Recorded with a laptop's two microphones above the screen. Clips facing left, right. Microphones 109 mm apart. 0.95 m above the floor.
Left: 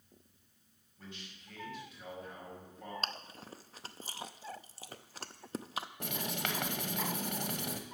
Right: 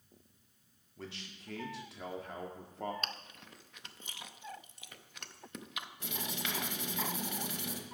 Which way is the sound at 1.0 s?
80° right.